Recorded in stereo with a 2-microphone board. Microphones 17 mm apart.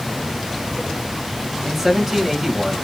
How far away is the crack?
No crack in this recording.